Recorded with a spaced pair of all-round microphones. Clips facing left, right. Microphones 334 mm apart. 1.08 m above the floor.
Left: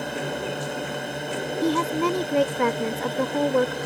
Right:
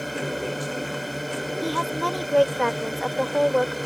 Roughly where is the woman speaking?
Left.